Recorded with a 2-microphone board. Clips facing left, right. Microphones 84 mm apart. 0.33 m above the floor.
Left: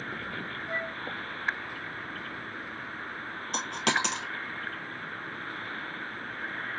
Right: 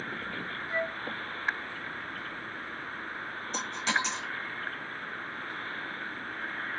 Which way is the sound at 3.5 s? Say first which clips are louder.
Left 2 dB; 85° left.